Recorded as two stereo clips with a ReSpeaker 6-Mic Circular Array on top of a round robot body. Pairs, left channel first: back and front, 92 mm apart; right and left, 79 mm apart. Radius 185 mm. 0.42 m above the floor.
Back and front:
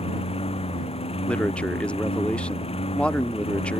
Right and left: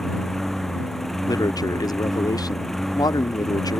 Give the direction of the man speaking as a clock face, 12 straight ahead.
3 o'clock.